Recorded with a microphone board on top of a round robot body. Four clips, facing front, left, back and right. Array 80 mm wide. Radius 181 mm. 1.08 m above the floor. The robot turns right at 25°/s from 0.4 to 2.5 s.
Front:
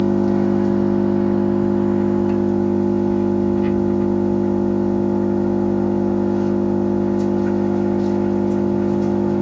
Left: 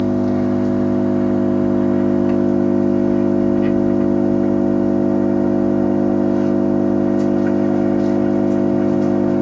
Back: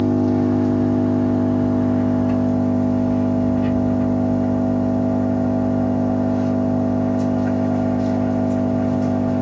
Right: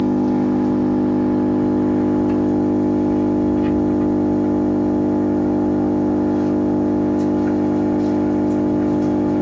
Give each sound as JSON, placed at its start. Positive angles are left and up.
{"t": 0.0, "sound": "an engine running", "azimuth_deg": 40, "distance_m": 1.3}